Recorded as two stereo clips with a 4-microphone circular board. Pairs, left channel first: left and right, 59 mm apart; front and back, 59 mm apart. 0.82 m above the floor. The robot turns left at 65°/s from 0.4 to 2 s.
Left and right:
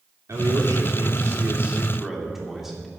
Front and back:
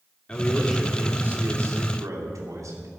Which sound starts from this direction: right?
A man speaking, at 0.3 s.